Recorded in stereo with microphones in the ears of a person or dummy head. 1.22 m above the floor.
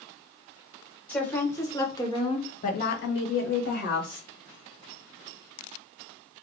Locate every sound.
1.1 s a woman speaking: 10° left (ahead or behind), 1.4 m; by 4.3 s 40° left (ahead or behind), 0.9 m